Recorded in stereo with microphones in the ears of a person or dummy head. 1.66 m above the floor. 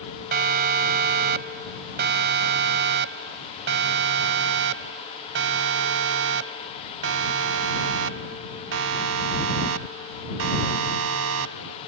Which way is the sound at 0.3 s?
50° right (ahead or behind).